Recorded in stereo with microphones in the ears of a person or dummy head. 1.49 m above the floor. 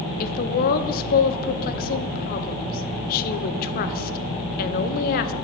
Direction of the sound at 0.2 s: 50° left (ahead or behind).